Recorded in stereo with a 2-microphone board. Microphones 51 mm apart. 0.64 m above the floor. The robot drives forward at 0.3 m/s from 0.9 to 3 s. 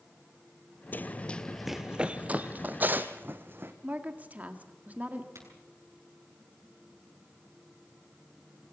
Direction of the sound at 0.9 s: 40° left (ahead or behind).